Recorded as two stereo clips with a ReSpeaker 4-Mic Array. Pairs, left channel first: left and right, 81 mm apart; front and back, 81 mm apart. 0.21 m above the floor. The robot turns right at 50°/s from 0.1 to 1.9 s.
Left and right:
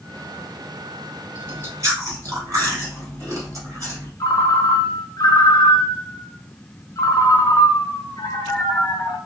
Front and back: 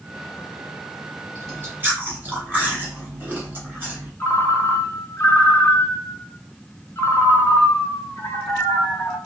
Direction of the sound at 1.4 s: 150° right.